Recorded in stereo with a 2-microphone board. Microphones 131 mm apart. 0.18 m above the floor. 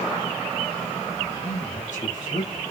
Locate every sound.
1.3 s a man speaking: 75° left (ahead or behind), 6.5 m; by 2.6 s 65° left (ahead or behind), 7 m